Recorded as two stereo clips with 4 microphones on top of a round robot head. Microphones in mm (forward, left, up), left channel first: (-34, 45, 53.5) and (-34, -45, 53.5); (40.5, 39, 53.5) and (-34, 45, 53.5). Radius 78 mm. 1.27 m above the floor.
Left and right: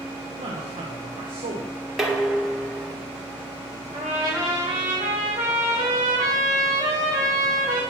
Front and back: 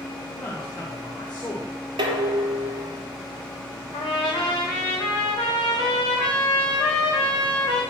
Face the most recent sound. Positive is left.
turn(degrees=-50)